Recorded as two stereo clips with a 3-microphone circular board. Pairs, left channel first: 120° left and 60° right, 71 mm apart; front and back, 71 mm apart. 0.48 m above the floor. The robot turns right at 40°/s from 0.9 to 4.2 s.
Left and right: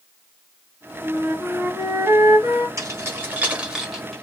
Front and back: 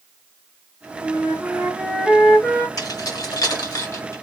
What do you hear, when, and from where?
1.0 s a flute: 130° right, 1.9 m; by 2.7 s 65° right, 1.9 m
2.8 s keys jangling: 20° right, 1.3 m; by 4.2 s 35° left, 1.3 m